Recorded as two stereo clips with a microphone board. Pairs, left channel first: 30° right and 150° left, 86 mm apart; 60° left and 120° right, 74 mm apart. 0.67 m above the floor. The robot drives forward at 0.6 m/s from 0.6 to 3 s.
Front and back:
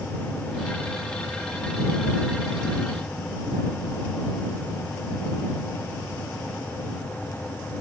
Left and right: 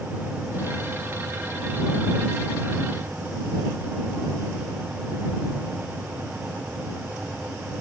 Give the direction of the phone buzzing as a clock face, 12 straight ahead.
I don't hear a phone buzzing.